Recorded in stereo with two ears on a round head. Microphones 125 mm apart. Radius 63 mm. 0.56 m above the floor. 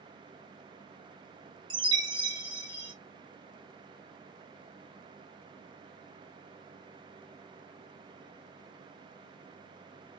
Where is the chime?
30° right (ahead or behind), 1.0 m.